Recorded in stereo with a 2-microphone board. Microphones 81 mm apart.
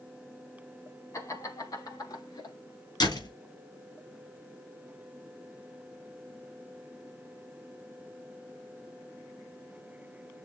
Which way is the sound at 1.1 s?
40° left (ahead or behind).